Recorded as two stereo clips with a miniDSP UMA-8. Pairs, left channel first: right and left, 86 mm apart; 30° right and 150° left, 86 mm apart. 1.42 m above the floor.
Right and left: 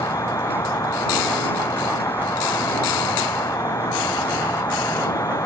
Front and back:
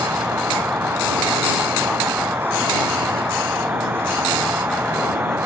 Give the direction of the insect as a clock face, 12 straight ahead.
5 o'clock.